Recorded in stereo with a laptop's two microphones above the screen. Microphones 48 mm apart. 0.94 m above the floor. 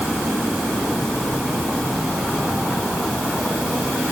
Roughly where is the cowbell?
No cowbell in this recording.